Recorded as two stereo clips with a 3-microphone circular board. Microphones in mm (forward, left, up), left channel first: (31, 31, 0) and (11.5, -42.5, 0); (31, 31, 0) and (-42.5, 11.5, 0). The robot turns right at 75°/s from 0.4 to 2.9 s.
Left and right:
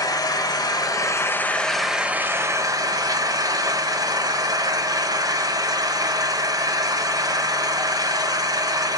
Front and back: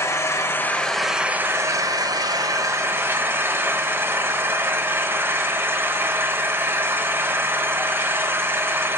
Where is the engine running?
60° left, 0.7 m; by 9.0 s 115° right, 0.7 m.